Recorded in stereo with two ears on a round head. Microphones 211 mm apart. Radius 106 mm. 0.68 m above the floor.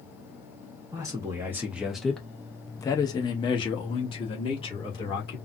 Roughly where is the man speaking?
Centre.